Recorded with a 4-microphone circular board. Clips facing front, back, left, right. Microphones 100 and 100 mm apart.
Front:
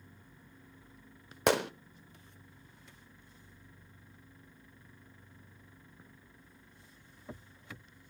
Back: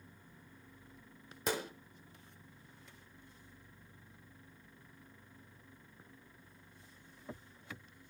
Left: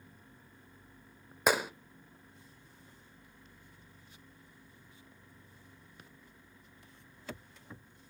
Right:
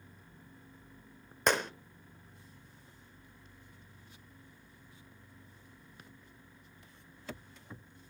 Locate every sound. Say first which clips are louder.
1.5 s a gunshot: front 9 dB, left 1 dB; 5° left, 0.6 m